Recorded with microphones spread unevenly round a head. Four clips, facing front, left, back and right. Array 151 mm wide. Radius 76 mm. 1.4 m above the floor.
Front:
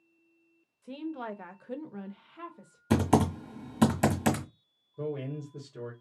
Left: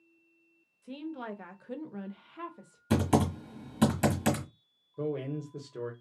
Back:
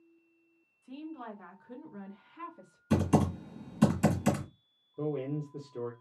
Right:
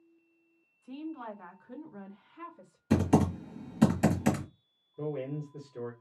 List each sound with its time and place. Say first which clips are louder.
0.8 s a woman speaking: left 1 dB, front 5 dB; 25° left, 1.1 m; by 2.8 s 115° left, 1.1 m
2.9 s typing on a keyboard: right 1 dB, front 3 dB; 20° left, 1.5 m
5.0 s a man speaking: left 2 dB, back 2 dB; 120° left, 1.3 m